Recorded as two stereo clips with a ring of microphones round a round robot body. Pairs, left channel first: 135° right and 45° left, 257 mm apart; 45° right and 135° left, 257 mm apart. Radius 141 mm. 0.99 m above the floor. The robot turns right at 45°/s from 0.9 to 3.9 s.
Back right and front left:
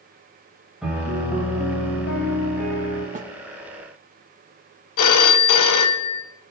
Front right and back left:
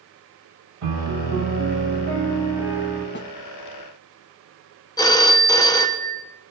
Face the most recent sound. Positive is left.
turn(degrees=-120)